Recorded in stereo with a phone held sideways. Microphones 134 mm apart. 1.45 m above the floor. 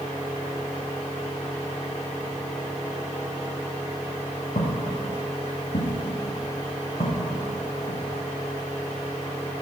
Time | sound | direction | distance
4.5 | footsteps | 60° left (ahead or behind) | 3 m